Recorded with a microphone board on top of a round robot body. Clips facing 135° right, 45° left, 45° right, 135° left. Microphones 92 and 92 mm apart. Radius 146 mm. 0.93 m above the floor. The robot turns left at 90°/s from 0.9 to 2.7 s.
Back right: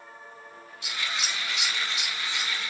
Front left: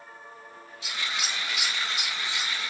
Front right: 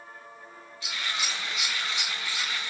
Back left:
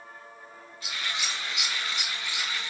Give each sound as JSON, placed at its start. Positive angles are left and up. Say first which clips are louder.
{"t": 0.8, "sound": "scissors", "louder": "even, front right 1 dB", "azimuth_deg": -175, "distance_m": 2.5}